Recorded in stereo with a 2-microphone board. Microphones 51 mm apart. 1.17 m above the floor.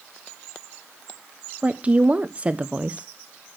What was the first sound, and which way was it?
A woman speaking, 25° right (ahead or behind).